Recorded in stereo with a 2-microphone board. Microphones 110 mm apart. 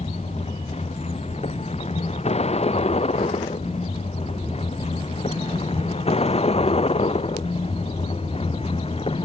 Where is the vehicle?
75° left (ahead or behind); by 9.3 s 60° left (ahead or behind).